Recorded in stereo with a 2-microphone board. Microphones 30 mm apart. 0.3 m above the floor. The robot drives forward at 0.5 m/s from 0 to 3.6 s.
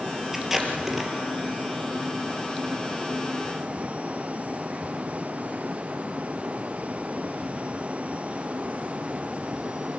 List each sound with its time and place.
0.3 s tape being pulled: 10° right (ahead or behind), 3.5 m